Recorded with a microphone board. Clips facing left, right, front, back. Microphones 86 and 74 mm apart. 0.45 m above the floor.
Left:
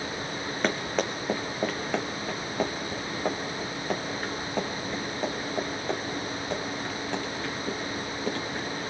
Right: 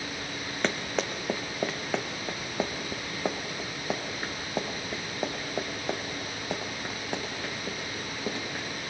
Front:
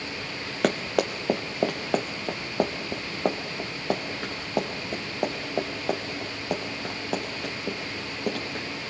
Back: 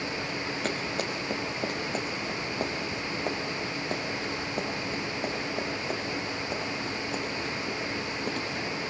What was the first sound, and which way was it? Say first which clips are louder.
Running footsteps: left 2 dB, front 10 dB; 5° left.